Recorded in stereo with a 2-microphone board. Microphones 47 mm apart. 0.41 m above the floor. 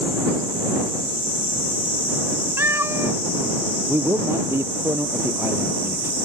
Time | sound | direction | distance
2.6 | a cat meowing | 75° right (ahead or behind) | ?
3.9 | a man speaking | 70° right (ahead or behind) | ?